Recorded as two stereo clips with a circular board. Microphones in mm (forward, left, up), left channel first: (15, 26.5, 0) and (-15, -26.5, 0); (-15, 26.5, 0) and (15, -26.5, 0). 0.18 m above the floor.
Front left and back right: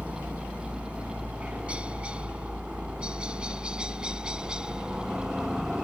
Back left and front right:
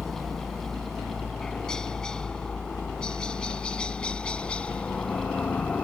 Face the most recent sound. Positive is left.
turn(degrees=170)